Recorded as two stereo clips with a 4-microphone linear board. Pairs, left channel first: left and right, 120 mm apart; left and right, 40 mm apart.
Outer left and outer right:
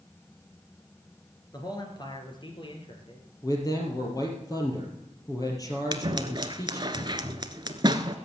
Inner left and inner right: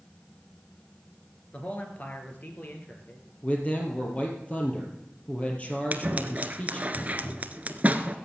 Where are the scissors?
40° right (ahead or behind), 0.9 m.